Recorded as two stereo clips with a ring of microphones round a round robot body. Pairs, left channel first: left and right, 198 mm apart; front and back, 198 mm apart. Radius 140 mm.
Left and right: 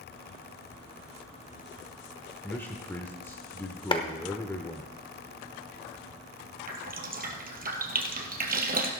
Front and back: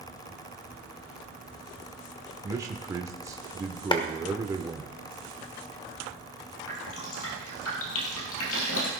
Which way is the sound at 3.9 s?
45° left.